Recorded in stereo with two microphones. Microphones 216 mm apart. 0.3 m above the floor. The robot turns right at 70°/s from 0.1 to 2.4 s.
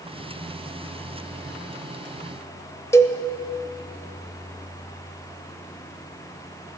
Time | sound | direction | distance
2.9 | a cowbell | 15° left (ahead or behind) | 0.9 m